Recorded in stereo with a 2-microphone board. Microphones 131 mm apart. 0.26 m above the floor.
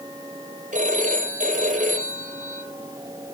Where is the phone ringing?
75° right (ahead or behind), 5 m.